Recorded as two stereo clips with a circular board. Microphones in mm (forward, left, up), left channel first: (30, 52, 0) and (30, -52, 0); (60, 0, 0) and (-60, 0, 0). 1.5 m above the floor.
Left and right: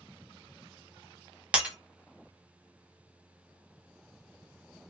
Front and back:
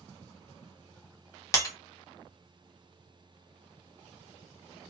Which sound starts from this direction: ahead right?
Breaking glass, at 1.5 s.